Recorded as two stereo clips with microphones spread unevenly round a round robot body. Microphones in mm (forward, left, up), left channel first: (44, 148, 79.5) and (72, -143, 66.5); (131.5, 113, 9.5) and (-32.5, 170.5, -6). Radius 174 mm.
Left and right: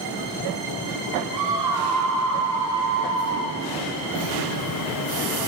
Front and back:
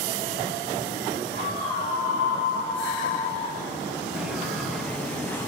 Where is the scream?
90° right, 4 m; by 3.6 s 75° right, 4.5 m.